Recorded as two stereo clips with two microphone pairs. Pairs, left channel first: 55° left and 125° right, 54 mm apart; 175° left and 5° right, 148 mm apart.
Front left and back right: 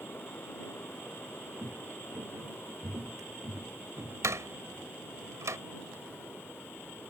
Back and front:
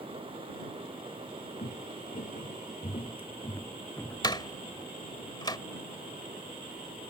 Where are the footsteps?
165° right; by 4.9 s 90° right.